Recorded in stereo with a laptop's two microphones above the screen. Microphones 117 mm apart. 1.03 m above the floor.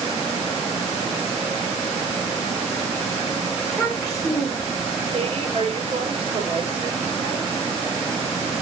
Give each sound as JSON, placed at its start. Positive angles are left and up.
{"t": 3.6, "sound": "a child speaking", "side_deg": 5, "distance_m": 3.0}
{"t": 5.1, "sound": "a woman speaking", "side_deg": -65, "distance_m": 4.5}